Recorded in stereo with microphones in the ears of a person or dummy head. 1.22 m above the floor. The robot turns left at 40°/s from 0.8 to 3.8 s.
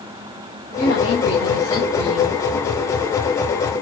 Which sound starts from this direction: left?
A woman speaking, at 0.8 s.